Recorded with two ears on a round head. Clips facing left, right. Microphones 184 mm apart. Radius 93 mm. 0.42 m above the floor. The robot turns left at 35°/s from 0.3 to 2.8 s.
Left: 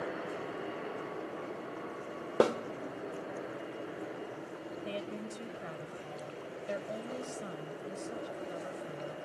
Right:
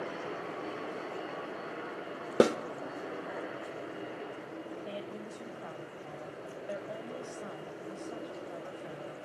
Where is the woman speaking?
25° left (ahead or behind), 1.8 m.